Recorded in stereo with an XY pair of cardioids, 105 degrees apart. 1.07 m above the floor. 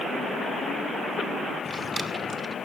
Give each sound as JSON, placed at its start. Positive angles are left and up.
{"t": 1.6, "sound": "a drawer", "azimuth_deg": -20, "distance_m": 2.0}